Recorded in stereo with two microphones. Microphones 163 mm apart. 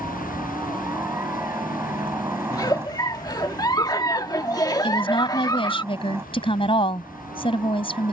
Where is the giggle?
25° left (ahead or behind).